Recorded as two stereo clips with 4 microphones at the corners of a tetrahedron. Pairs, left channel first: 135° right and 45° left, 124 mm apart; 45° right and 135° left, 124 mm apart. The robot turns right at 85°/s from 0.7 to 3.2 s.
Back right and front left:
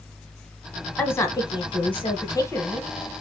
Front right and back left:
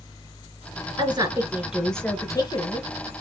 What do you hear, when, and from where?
1.0 s a woman speaking: 150° left, 1.5 m; by 2.9 s 45° right, 1.5 m